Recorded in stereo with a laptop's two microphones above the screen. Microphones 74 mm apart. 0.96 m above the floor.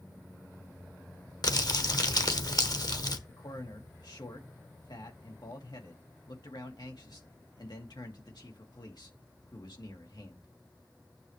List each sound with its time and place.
1.4 s crumpling: 60° left (ahead or behind), 1.0 m
3.3 s a man speaking: 70° left (ahead or behind), 2 m